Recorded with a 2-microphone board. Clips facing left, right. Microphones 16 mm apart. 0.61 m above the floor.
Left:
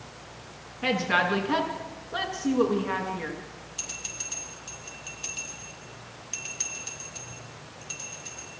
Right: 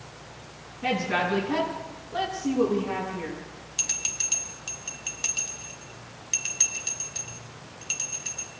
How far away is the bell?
About 1.9 m.